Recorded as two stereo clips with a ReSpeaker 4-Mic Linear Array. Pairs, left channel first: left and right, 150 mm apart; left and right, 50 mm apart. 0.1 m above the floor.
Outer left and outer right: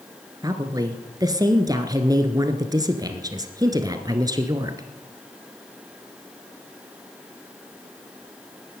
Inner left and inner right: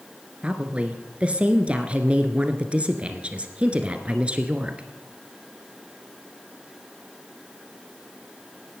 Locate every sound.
0.4 s a woman speaking: 25° right (ahead or behind), 1.3 m